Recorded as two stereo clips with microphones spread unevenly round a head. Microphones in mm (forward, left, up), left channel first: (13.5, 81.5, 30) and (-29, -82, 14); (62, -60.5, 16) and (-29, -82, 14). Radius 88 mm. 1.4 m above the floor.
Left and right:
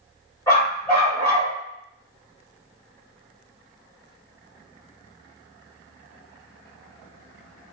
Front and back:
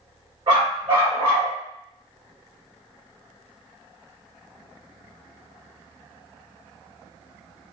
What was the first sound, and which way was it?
A dog barking, 140° left.